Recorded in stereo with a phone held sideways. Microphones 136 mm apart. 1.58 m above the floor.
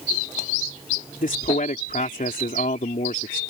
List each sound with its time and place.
1.2 s a man speaking: 75° left (ahead or behind)